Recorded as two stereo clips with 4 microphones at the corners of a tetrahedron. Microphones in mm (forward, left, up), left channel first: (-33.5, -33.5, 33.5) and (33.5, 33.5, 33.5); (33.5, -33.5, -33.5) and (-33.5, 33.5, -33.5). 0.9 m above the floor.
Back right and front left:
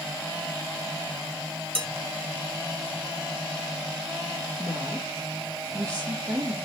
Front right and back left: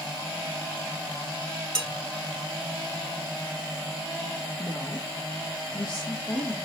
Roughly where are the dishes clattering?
Ahead left.